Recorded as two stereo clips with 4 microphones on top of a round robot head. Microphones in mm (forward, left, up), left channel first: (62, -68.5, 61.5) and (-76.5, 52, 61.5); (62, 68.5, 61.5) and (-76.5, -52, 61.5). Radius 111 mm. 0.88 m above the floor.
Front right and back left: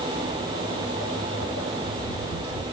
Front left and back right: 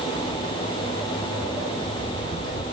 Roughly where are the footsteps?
Right.